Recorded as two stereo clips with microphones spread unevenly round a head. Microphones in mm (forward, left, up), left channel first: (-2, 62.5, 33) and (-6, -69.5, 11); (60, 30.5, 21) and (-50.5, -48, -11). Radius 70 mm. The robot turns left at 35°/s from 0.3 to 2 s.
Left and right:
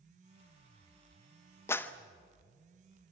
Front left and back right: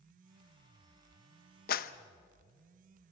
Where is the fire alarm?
I don't hear a fire alarm.